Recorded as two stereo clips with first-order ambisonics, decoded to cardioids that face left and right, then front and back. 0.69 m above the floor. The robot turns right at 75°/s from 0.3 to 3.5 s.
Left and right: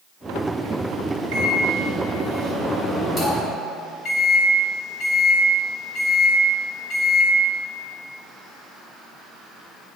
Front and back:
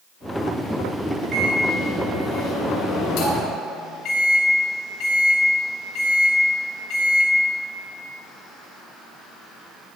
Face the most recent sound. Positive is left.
turn(degrees=45)